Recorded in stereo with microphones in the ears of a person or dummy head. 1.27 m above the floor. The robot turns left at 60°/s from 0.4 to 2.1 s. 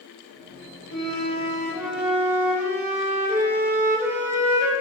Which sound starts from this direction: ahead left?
A flute, at 0.9 s.